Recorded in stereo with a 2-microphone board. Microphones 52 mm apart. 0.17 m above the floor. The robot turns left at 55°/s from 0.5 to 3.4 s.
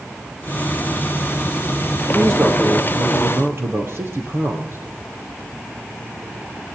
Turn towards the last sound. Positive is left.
turn(degrees=-120)